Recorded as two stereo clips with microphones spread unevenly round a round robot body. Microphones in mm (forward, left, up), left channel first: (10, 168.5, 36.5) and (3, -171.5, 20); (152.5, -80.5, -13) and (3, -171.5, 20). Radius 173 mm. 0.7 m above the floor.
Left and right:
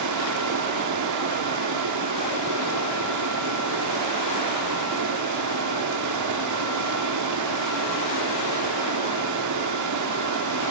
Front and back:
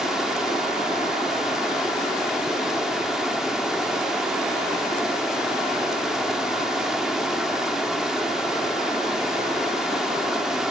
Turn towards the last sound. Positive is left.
turn(degrees=-55)